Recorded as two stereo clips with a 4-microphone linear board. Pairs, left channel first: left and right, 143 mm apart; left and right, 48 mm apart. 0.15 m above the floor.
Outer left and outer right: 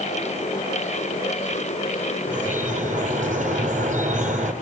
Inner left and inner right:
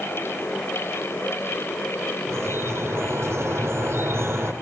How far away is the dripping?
About 3.5 m.